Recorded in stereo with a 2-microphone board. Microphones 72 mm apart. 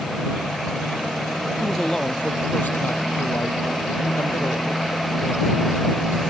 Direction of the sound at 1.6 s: 5° left (ahead or behind).